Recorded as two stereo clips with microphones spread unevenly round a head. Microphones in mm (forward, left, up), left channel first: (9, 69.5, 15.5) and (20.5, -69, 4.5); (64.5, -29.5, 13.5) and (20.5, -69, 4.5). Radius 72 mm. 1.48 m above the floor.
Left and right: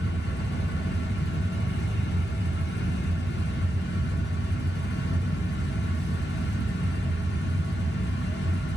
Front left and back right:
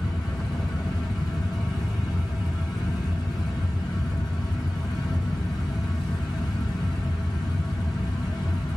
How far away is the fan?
About 0.9 m.